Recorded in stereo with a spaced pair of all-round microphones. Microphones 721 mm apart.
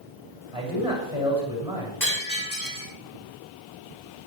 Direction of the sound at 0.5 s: 55° left (ahead or behind).